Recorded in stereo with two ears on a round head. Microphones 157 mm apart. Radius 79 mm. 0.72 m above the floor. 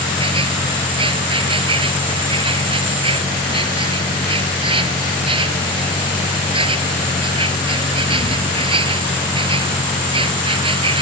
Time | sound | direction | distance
0.0 | an insect | 30° right (ahead or behind) | ?